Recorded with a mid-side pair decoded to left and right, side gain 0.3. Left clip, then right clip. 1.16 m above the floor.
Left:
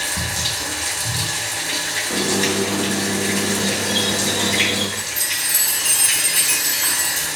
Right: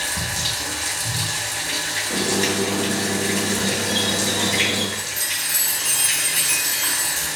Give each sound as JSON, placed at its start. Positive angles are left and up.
{"t": 0.0, "sound": "running water", "azimuth_deg": 20, "distance_m": 3.0}
{"t": 2.1, "sound": "a squeak", "azimuth_deg": 35, "distance_m": 2.0}
{"t": 5.0, "sound": "a chime", "azimuth_deg": 55, "distance_m": 4.5}